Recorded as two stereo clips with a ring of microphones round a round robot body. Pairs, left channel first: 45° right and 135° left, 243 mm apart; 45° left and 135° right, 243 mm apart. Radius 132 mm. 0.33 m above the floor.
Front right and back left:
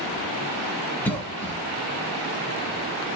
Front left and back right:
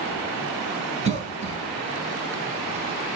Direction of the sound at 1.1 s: 120° right.